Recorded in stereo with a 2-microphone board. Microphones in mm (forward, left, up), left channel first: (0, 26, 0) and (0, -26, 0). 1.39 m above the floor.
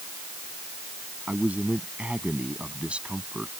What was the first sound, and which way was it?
A man speaking, 30° right (ahead or behind).